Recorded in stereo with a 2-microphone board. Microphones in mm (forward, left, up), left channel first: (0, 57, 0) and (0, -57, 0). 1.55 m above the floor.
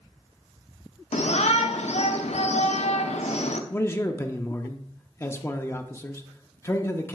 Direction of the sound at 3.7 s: 20° left (ahead or behind).